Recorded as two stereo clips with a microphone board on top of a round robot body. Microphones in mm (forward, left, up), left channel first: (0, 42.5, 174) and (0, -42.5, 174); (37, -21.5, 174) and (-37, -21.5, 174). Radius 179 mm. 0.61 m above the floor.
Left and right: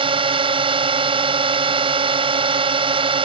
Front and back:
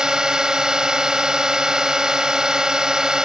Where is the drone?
100° right.